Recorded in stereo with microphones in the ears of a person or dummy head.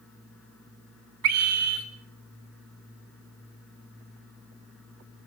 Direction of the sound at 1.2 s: 80° right.